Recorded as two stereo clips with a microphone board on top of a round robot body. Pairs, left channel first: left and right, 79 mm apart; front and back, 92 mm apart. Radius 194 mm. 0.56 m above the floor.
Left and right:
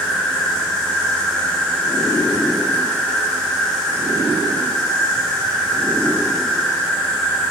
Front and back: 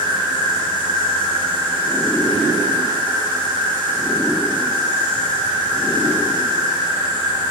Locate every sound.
0.0 s an insect: 170° left, 2.5 m